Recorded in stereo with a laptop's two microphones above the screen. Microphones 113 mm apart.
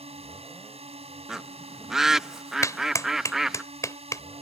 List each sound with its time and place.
0.0 s a drone: 65° right (ahead or behind)
1.3 s a bird: 5° right (ahead or behind)
2.6 s a clap: 30° left (ahead or behind)